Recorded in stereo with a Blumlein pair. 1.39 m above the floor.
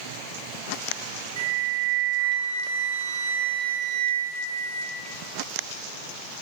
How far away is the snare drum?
No snare drum in this recording.